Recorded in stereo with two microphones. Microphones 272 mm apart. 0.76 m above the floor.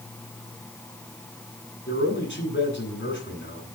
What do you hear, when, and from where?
1.9 s a man speaking: 45° left (ahead or behind), 9 m